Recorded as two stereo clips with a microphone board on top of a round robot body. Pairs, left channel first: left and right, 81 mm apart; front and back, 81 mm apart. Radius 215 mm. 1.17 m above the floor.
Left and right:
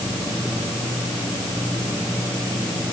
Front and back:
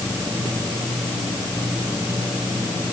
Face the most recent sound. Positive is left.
No sound to turn to.